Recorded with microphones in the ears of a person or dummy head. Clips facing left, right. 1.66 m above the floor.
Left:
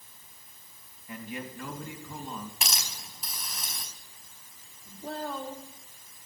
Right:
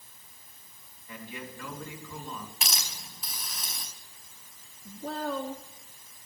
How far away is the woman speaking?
About 2 m.